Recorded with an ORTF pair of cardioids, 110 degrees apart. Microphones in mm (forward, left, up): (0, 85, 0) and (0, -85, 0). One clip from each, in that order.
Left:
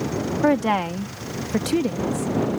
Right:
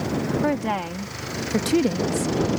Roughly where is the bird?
I don't hear a bird.